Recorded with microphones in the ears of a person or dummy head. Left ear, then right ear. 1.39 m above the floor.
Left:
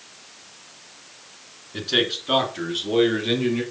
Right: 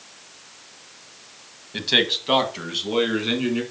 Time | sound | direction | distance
1.7 | a man speaking | 50° right (ahead or behind) | 1.4 m